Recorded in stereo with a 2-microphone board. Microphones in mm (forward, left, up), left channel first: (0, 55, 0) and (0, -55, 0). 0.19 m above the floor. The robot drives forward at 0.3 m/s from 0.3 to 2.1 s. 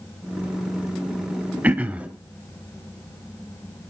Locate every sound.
1.6 s throat clearing: 15° right (ahead or behind), 0.5 m